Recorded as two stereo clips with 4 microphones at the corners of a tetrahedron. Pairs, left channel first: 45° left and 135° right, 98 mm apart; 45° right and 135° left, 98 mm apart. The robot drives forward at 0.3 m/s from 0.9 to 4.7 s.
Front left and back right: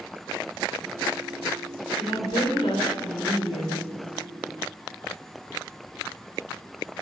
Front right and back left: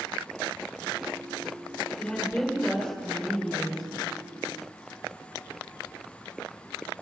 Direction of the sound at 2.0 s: 40° left.